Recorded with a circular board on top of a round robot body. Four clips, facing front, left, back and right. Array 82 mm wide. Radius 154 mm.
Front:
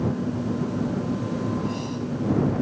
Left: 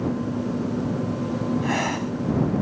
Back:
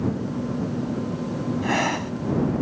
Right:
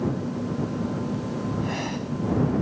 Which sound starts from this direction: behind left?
Breathing, at 1.6 s.